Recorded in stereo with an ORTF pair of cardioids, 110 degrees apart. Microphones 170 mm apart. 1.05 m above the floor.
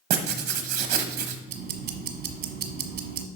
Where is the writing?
65° right, 1.2 m.